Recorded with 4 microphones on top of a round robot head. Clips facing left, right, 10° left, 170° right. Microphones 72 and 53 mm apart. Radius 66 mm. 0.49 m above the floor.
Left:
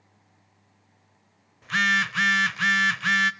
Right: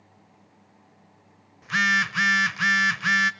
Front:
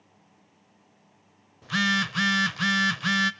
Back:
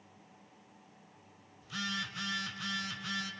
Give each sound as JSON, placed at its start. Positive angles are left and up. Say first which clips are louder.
{"t": 1.6, "sound": "a phone buzzing", "louder": "right 1 dB, front 14 dB", "azimuth_deg": -5, "distance_m": 0.6}